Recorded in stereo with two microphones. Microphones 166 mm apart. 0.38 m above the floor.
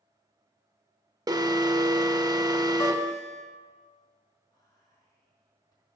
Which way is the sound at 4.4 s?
20° left (ahead or behind).